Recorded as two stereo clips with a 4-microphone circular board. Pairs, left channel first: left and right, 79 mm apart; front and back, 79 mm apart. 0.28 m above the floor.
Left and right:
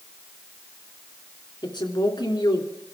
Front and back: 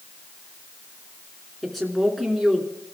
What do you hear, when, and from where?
1.6 s a woman speaking: 90° left, 3 m